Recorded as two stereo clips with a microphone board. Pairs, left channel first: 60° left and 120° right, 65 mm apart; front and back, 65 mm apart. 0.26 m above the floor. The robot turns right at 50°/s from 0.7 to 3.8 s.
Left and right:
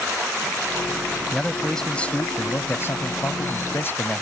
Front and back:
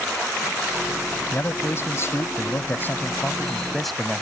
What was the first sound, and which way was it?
A man speaking, 40° right.